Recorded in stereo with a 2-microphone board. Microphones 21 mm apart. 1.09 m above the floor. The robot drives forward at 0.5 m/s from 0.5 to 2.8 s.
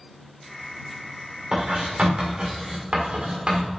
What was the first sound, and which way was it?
Writing, 60° right (ahead or behind).